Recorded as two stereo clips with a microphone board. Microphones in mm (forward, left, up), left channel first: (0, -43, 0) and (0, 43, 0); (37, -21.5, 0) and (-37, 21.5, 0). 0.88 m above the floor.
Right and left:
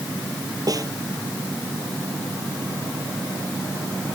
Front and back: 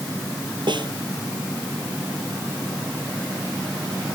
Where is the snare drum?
130° left.